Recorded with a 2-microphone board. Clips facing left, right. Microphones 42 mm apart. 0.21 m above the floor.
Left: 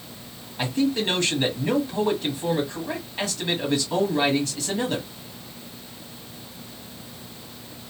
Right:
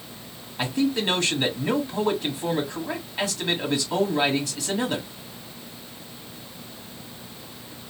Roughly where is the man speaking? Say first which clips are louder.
Even; centre.